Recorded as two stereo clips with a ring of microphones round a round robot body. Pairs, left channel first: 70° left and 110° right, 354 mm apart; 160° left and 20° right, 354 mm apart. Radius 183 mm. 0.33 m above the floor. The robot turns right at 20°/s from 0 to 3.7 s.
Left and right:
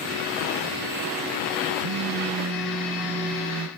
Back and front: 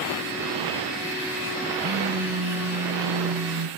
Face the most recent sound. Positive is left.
turn(degrees=-45)